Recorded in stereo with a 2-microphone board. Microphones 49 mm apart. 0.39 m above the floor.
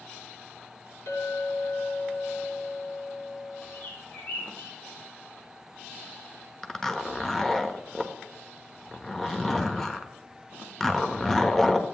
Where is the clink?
65° left (ahead or behind), 3 m.